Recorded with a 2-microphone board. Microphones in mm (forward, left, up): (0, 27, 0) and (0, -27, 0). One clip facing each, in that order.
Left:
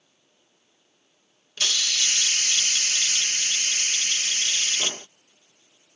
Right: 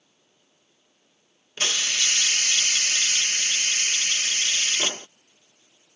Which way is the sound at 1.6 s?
30° right (ahead or behind).